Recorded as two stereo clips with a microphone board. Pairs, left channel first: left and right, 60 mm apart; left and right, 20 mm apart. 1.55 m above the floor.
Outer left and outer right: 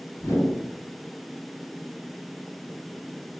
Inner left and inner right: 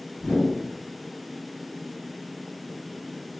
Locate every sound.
0.2 s a whoosh: 40° left (ahead or behind), 1.6 m